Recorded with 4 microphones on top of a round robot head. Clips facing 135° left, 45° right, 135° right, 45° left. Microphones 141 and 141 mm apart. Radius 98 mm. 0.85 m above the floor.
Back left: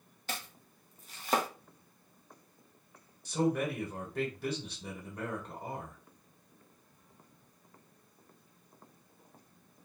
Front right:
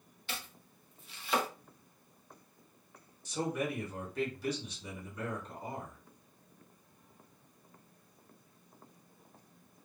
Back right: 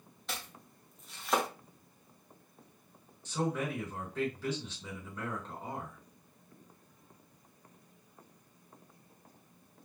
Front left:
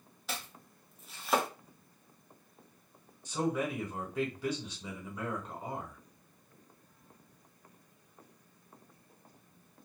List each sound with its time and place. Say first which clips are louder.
0.3 s chopping: back left 3 dB, front left 1 dB; 135° left, 0.8 m
3.2 s a man speaking: back left 4 dB, front left 1 dB; 120° left, 1.6 m